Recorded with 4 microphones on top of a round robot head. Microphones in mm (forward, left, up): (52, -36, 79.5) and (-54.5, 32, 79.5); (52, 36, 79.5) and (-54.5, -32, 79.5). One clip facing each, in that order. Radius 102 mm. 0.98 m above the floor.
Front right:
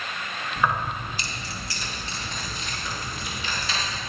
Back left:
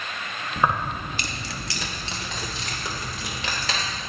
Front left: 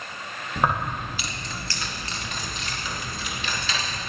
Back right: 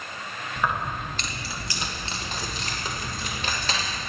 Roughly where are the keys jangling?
Left.